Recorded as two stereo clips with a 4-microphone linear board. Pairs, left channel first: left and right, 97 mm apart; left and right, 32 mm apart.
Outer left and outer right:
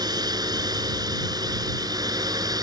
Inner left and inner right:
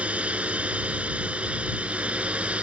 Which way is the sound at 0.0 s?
40° right (ahead or behind).